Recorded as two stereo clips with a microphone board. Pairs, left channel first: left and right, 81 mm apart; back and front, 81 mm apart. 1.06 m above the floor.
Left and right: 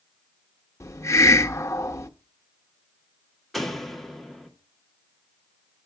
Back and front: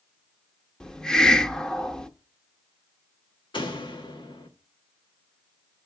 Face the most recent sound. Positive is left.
turn(degrees=180)